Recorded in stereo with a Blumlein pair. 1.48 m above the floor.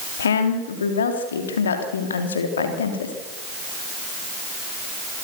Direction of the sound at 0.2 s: 65° left.